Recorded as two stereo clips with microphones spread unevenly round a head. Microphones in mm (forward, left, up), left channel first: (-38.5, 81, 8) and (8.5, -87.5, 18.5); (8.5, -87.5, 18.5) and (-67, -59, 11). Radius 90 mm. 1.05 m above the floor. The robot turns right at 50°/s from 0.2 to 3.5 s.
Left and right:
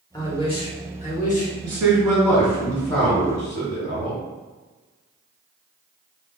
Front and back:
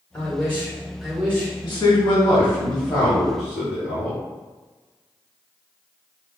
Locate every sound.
0.1 s a man speaking: 50° left, 1.0 m; by 1.5 s 115° left, 1.0 m
1.6 s a man speaking: 15° right, 1.3 m; by 4.2 s 80° left, 1.3 m